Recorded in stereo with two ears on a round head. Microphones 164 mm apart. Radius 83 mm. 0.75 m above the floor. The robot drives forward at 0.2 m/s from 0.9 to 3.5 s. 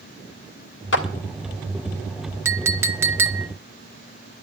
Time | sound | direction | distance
0.9 | a clap | 75° left (ahead or behind) | 1.8 m
2.5 | a clink | 15° right (ahead or behind) | 0.7 m